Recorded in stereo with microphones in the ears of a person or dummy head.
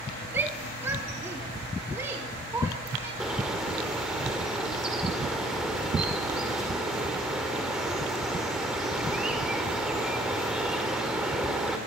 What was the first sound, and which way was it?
A shout, 15° right (ahead or behind).